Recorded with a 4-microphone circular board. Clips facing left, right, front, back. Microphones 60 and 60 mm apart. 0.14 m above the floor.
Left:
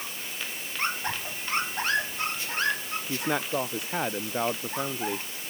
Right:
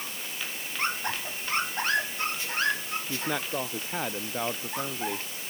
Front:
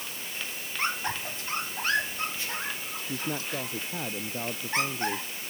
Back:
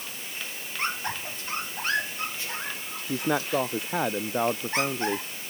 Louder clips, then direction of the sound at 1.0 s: Even, even; 90° left.